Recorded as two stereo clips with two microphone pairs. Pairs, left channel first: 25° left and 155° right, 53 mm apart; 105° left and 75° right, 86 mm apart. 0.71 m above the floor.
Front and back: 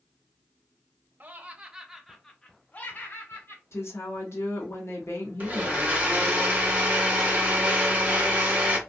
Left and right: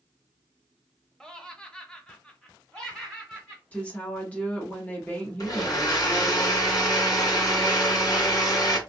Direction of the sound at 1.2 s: 175° right.